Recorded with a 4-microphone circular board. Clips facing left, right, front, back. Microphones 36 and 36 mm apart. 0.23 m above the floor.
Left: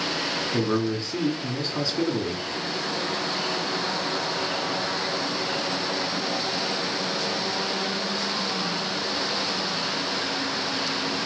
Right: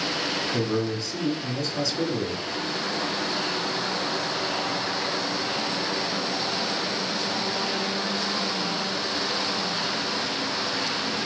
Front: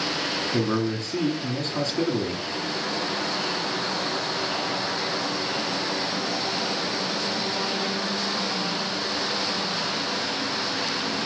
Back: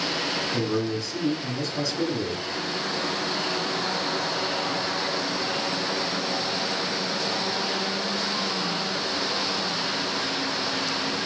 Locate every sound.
0.5 s a man speaking: 30° left, 2.5 m